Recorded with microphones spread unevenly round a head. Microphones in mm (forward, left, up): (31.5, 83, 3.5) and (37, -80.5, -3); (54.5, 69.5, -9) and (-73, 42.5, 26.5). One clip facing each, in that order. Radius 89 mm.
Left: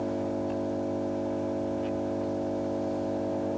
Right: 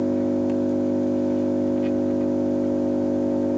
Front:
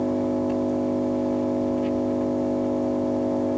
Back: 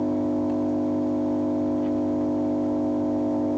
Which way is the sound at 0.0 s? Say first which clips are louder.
Right 9 dB, even; 75° right.